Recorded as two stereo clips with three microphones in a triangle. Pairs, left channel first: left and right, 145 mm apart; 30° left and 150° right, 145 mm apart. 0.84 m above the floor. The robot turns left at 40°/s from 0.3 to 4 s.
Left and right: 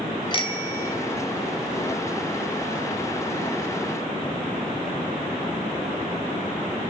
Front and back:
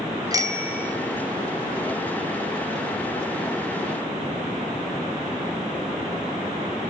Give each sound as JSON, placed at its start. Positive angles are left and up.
{"t": 0.3, "sound": "a bicycle bell", "azimuth_deg": 150, "distance_m": 3.0}